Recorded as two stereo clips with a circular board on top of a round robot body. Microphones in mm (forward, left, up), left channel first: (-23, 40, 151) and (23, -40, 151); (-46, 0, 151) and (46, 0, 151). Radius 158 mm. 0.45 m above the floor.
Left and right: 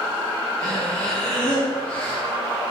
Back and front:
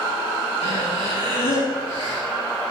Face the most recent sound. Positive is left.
turn(degrees=-160)